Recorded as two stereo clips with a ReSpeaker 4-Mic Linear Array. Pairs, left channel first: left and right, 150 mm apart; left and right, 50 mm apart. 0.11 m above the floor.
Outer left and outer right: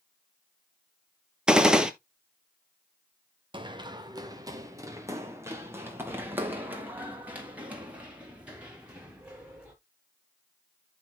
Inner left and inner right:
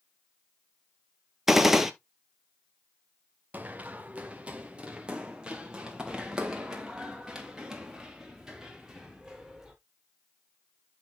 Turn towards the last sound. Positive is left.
turn(degrees=-5)  # may be behind; listen again after turning